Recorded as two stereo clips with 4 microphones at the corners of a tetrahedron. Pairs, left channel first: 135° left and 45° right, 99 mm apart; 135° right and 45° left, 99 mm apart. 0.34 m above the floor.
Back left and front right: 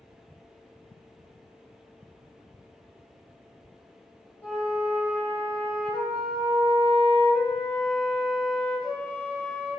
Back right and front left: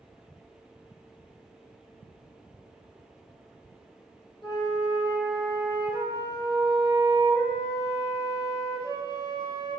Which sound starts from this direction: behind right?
A flute, at 4.4 s.